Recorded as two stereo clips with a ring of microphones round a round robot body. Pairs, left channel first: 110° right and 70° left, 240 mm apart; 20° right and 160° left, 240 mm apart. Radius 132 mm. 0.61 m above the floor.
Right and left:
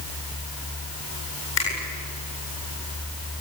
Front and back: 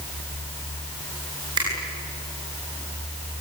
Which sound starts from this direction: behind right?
A finger snap, at 1.6 s.